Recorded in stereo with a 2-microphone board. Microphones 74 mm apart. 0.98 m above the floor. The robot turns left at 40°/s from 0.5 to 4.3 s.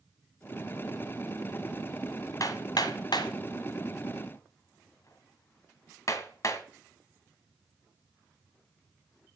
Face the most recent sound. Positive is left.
turn(degrees=45)  # may be behind; listen again after turning